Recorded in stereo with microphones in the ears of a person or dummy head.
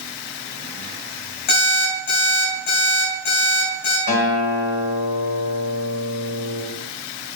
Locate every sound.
1.5 s an alarm clock: 65° left (ahead or behind), 3.5 m
4.1 s a guitar: 60° left (ahead or behind), 2.5 m